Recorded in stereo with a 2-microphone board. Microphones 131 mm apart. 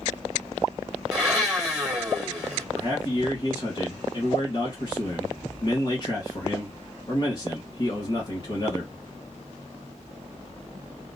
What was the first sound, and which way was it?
A blender, 5° right (ahead or behind).